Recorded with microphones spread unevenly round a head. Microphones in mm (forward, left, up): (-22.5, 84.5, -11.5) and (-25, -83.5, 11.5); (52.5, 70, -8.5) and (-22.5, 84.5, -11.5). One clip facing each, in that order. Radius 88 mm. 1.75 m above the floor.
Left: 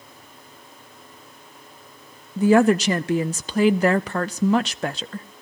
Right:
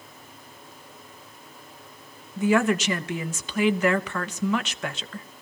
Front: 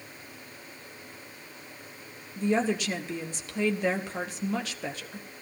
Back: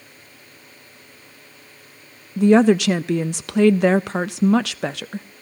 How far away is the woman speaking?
About 0.5 m.